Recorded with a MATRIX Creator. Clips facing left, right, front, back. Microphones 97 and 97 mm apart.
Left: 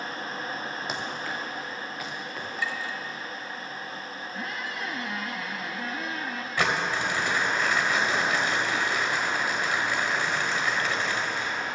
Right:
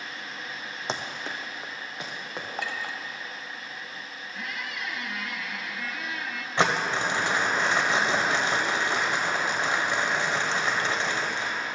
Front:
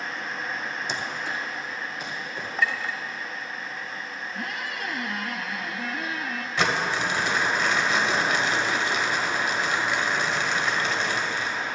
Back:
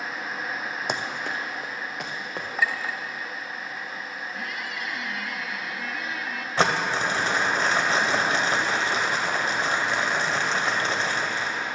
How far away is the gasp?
I don't hear a gasp.